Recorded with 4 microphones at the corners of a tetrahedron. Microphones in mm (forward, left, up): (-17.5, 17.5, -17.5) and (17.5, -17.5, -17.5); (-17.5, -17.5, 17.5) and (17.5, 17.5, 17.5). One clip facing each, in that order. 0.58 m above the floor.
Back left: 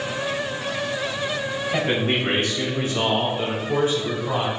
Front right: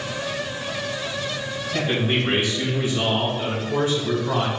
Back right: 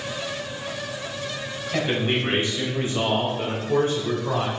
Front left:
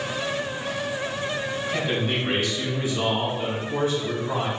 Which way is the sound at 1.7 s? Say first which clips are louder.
Even, back right 4 dB; 160° left.